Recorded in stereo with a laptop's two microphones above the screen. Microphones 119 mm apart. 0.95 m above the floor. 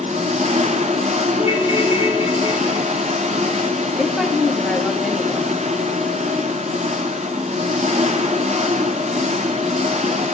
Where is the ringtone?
25° right (ahead or behind), 3.5 m.